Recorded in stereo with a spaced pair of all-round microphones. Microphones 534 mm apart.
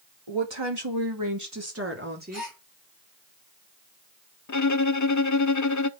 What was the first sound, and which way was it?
A woman speaking, 60° right (ahead or behind).